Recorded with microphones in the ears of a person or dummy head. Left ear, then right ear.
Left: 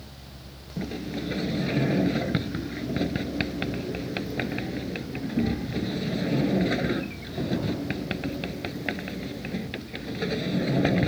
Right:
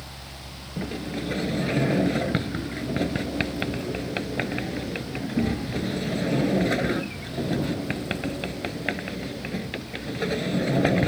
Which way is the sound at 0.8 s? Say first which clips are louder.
Right 1 dB; 15° right (ahead or behind).